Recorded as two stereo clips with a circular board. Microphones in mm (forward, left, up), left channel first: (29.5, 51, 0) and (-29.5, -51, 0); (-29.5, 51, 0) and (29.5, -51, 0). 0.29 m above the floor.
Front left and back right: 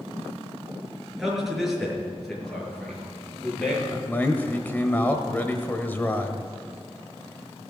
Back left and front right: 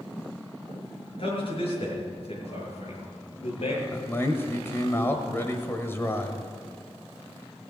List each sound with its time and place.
1.2 s a man speaking: 155° left, 5.5 m; by 3.8 s 140° left, 6.5 m
3.9 s a man speaking: 105° left, 1.3 m